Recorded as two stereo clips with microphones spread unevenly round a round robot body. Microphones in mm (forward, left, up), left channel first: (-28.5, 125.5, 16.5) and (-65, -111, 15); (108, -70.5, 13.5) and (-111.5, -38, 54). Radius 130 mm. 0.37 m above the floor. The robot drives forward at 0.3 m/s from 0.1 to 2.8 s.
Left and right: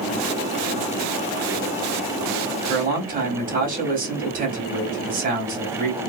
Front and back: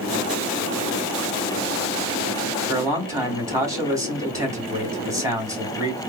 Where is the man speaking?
105° right, 1.6 m.